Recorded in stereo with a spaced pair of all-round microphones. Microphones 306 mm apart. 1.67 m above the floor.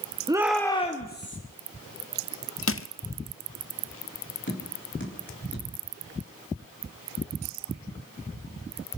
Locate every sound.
0.3 s a shout: 15° right (ahead or behind), 0.8 m; by 1.4 s 40° left (ahead or behind), 1.2 m
2.7 s crushing: 45° left (ahead or behind), 0.7 m
4.5 s tapping: 35° left (ahead or behind), 3.5 m